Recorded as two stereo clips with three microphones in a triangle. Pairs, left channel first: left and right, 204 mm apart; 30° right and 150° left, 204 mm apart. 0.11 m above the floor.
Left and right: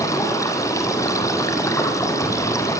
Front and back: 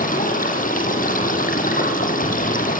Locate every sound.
0.0 s running water: 15° left, 4.5 m